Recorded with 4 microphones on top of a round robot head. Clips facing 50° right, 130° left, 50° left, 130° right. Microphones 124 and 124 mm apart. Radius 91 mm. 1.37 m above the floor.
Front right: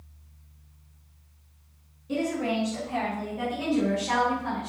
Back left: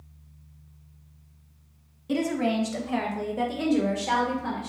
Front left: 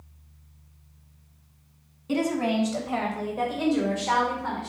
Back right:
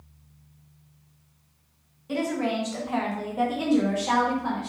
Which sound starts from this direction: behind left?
A woman speaking, at 2.1 s.